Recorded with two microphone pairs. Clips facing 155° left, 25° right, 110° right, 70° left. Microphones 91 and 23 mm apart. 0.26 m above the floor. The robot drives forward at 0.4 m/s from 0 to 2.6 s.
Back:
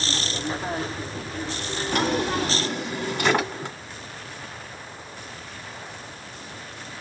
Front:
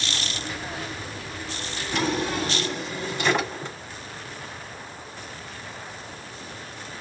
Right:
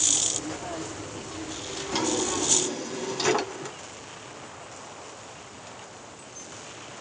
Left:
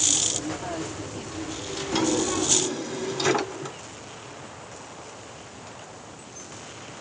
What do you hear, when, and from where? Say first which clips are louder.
1.9 s a drawer: back 2 dB, left 3 dB; 165° left, 1.3 m